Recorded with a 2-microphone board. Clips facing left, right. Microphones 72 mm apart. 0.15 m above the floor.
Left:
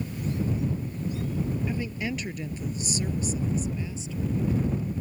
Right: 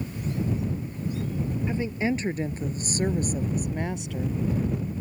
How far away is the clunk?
No clunk in this recording.